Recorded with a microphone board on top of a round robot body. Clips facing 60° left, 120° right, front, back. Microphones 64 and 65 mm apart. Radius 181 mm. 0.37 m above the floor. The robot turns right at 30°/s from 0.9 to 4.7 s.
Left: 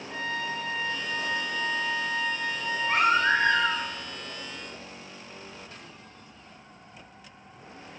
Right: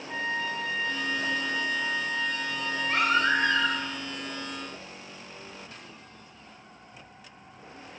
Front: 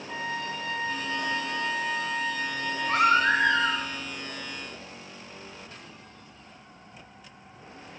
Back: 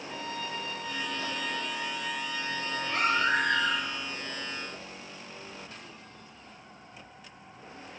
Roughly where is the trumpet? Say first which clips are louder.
Right 1 dB, front 5 dB; ahead right.